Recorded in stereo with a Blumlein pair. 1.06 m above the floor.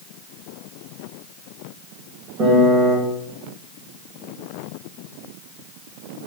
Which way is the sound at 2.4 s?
30° right.